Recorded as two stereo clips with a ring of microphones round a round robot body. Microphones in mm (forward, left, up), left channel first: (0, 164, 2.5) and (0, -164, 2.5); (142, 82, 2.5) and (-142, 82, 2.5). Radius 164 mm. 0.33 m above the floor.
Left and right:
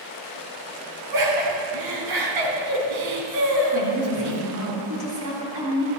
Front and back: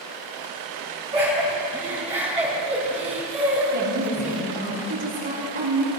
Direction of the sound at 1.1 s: 110° right.